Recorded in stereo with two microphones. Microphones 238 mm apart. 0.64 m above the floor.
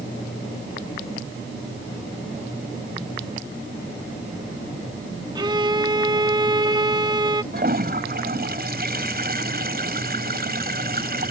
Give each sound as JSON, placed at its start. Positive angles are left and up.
{"t": 5.3, "sound": "a violin", "side_deg": -20}
{"t": 7.5, "sound": "a toilet flushing", "side_deg": -40}